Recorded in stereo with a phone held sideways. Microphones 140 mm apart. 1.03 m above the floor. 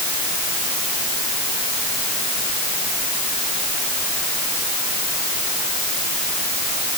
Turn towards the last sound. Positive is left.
No sound to turn to.